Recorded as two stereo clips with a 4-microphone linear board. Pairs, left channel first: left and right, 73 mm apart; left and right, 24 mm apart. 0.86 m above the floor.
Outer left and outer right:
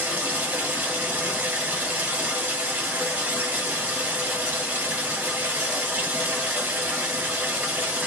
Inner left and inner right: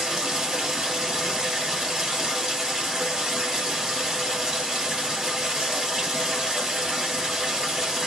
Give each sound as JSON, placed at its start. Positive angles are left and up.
{"t": 0.0, "sound": "running water", "side_deg": -25, "distance_m": 1.3}